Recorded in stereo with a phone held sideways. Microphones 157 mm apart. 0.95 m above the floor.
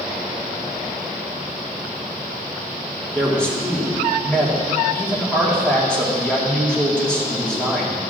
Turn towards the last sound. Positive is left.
turn(degrees=10)  # may be behind; listen again after turning